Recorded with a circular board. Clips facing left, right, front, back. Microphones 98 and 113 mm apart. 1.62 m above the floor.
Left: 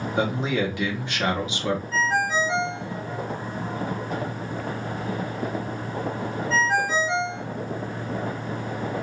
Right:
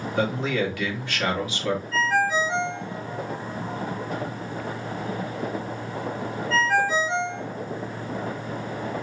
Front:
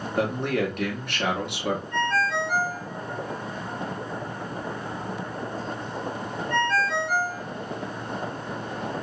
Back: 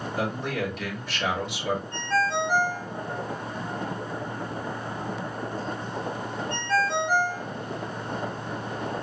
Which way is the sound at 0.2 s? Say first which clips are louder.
Even, front 5 dB; 20° left.